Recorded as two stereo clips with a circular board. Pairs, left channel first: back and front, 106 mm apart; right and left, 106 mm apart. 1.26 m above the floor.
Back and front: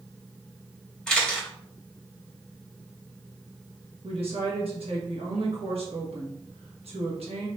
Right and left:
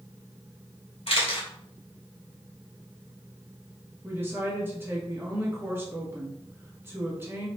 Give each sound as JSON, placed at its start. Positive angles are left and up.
{"t": 1.1, "sound": "a camera shutter", "azimuth_deg": -95, "distance_m": 1.9}
{"t": 4.0, "sound": "a woman speaking", "azimuth_deg": 20, "distance_m": 1.5}